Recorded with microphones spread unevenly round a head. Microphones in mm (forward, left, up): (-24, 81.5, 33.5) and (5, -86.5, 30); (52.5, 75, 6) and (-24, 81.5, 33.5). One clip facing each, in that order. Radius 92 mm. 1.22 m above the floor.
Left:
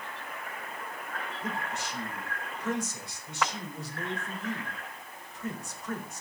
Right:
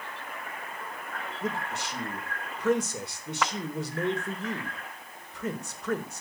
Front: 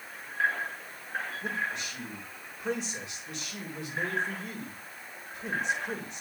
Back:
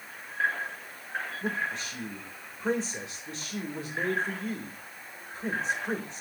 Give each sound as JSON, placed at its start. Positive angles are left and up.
{"t": 1.4, "sound": "a man speaking", "azimuth_deg": -110, "distance_m": 3.5}